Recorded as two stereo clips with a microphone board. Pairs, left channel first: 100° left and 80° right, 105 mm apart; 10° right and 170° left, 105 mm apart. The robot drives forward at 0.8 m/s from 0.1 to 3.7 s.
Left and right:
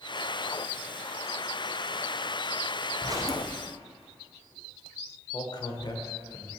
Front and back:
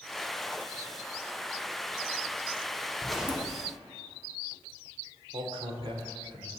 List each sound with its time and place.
3.0 s a zipper: 85° right, 0.6 m; by 3.5 s 140° right, 0.8 m
5.3 s a man speaking: 140° left, 1.1 m